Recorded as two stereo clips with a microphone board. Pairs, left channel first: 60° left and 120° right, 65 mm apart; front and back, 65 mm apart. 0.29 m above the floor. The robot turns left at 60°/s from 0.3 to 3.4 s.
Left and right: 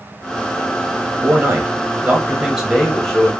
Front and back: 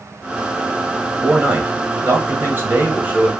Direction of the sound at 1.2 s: 120° right.